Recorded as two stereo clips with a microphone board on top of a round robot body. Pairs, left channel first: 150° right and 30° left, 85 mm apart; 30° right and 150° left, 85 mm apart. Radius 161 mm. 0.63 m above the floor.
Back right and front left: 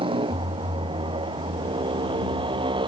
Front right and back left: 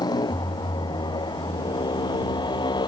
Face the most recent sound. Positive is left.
turn(degrees=5)